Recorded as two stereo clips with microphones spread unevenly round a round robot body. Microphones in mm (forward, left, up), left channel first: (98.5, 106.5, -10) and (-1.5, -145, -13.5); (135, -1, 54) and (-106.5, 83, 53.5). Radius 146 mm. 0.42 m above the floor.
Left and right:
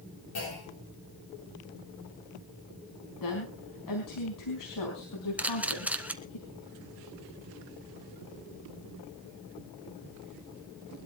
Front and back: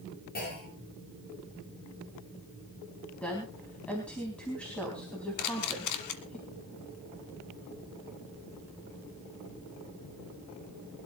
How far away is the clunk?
About 9 m.